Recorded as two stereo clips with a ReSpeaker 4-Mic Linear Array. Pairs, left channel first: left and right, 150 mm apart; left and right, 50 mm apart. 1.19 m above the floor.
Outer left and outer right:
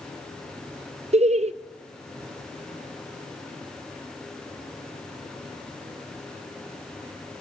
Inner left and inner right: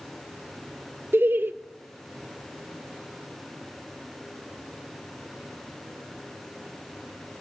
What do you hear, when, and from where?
1.1 s laughter: 45° right (ahead or behind), 0.6 m